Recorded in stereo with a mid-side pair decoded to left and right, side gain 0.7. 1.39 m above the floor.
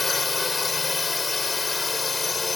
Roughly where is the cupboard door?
I don't hear a cupboard door.